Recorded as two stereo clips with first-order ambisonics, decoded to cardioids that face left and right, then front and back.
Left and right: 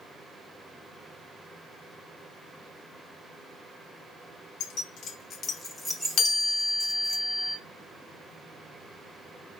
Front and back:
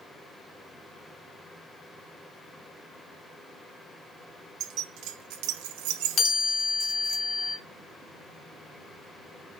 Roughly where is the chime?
Ahead left.